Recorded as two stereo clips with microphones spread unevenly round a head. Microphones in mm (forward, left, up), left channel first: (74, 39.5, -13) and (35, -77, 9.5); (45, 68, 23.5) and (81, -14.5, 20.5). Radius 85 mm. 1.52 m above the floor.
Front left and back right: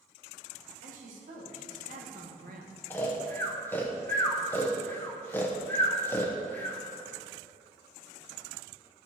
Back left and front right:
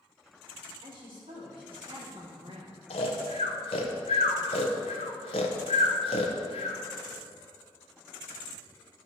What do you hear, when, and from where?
0.8 s a woman speaking: 110° right, 2.5 m; by 2.8 s 125° right, 1.1 m
2.9 s snoring: 150° left, 0.7 m